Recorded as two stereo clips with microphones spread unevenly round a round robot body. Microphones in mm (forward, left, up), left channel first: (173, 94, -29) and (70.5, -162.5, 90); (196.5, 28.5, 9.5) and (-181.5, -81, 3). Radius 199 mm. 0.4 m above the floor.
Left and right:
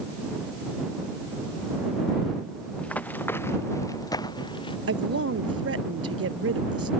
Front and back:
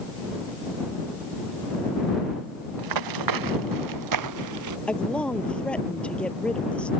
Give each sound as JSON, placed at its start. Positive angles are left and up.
{"t": 2.8, "sound": "running footsteps", "azimuth_deg": 155}
{"t": 4.9, "sound": "a woman speaking", "azimuth_deg": -70}